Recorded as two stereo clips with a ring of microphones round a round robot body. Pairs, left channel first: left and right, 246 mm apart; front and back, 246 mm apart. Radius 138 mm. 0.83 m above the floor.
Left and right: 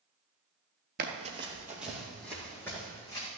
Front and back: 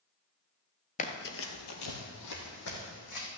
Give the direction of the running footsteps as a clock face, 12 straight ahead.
2 o'clock.